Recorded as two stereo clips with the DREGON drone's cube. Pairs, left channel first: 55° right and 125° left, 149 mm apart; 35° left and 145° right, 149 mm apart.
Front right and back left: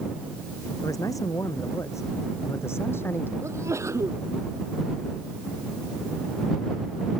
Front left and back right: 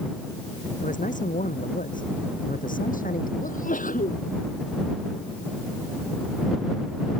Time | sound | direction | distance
0.8 | a man speaking | 10° left | ?
3.4 | a sneeze | 55° left | ?